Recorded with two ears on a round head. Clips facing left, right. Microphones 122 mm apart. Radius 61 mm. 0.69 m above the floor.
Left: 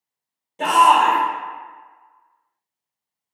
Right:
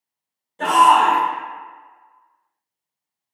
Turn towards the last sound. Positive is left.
turn(degrees=15)  # may be behind; listen again after turning